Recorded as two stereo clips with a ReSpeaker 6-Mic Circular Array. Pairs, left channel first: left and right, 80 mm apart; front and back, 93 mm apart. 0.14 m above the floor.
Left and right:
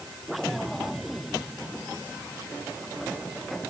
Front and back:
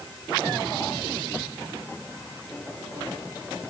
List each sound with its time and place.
Only background noise.